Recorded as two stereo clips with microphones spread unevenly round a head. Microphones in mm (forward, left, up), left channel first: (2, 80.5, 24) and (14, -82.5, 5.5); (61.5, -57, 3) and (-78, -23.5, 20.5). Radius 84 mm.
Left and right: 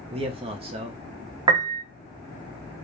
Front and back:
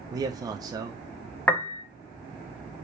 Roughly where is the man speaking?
Behind right.